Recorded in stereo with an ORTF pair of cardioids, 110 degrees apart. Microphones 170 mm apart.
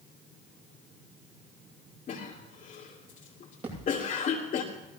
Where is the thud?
35° right, 10 m.